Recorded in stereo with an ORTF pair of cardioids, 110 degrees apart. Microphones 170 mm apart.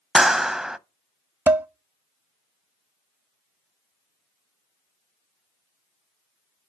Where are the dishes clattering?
10° right, 0.6 m.